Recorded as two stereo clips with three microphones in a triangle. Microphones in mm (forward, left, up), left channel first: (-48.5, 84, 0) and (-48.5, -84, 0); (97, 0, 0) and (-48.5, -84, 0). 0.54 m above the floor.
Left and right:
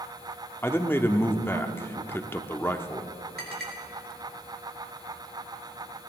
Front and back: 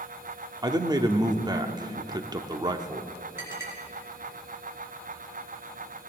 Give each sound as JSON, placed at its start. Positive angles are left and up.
{"t": 0.6, "sound": "a man speaking", "azimuth_deg": 160, "distance_m": 0.8}
{"t": 3.4, "sound": "a clink", "azimuth_deg": -75, "distance_m": 4.5}